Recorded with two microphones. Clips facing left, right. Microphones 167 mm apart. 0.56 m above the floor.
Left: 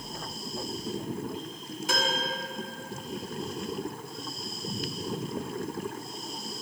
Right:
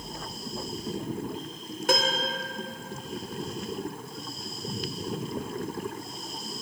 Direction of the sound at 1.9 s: 60° right (ahead or behind).